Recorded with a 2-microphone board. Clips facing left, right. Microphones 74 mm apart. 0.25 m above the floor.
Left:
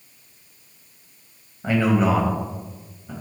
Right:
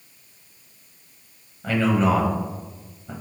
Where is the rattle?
No rattle in this recording.